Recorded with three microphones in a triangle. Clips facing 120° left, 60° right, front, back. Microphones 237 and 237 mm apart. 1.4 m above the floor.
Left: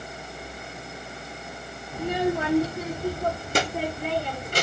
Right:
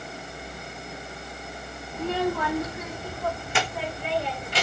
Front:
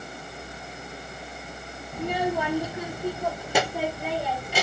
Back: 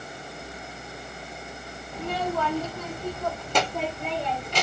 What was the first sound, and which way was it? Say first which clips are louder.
A child speaking: left 1 dB, front 2 dB; 55° left.